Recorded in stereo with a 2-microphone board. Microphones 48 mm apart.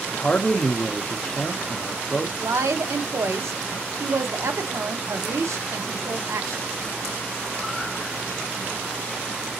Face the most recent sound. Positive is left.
turn(degrees=-85)